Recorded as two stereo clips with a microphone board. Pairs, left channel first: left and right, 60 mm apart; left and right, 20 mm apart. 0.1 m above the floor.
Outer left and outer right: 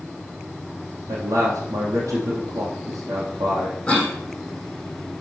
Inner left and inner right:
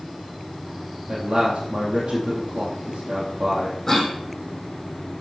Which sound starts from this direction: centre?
A cough, at 3.9 s.